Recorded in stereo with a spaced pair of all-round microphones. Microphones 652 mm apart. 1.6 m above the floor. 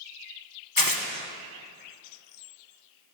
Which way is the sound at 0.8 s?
30° left (ahead or behind).